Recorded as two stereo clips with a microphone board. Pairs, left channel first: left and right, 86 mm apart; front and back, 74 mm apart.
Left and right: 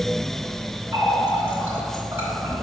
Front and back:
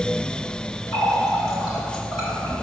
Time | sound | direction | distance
0.9 | a running tap | 30° right | 2 m